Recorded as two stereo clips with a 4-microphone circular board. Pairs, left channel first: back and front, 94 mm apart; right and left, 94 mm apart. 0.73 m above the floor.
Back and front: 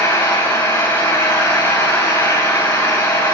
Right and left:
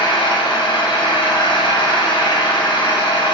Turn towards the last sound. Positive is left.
turn(degrees=-120)